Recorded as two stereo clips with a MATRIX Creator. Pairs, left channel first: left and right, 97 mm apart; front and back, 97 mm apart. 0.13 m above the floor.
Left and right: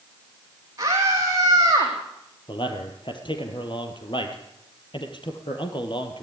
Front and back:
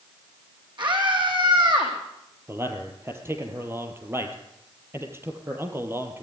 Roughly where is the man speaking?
Behind left.